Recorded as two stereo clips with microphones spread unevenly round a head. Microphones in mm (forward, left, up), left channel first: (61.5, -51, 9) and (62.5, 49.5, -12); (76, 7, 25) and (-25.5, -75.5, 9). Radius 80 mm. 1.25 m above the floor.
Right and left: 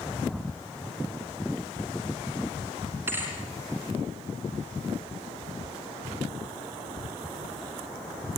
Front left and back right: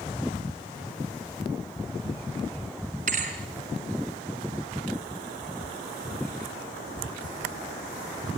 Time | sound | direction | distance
3.1 | a thud | 170° left | 3 m